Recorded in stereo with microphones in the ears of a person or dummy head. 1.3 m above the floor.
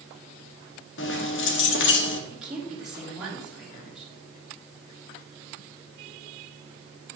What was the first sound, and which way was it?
Keys jangling, 75° left (ahead or behind).